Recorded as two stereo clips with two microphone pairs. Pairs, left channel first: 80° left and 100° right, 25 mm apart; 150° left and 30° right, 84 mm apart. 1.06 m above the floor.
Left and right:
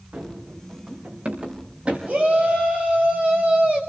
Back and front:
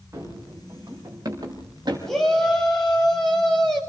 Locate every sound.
0.1 s running footsteps: 90° right, 6 m; by 2.0 s 70° right, 5.5 m
2.1 s a shout: 125° right, 6.5 m